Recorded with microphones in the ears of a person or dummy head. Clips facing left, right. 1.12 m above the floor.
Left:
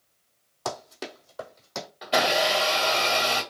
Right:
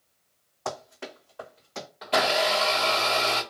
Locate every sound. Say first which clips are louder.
0.7 s running footsteps: left 1 dB; 40° left (ahead or behind), 1.5 m; by 1.9 s 50° left (ahead or behind), 1.8 m
2.0 s a blender: left 1 dB; 10° left (ahead or behind), 1.0 m